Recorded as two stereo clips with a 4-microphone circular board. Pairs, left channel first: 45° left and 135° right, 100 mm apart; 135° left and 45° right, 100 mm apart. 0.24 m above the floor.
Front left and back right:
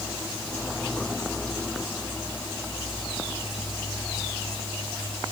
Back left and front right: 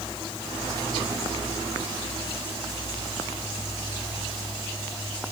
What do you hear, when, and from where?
Only background noise.